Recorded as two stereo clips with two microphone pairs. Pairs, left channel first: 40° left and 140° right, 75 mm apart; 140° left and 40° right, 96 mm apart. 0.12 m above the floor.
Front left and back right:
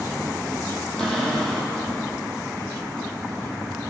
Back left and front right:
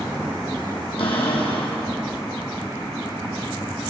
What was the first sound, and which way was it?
A cupboard door, 120° left.